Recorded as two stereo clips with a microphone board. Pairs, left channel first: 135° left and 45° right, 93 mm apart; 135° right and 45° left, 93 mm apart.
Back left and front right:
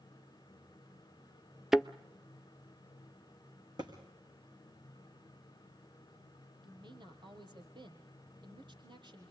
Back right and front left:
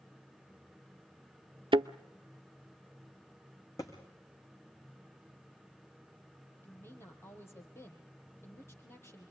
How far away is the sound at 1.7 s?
About 0.6 m.